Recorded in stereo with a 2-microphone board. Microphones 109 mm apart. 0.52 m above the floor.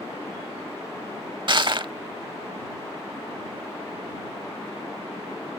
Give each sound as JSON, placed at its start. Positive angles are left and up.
{"t": 1.5, "sound": "crushing", "side_deg": -50}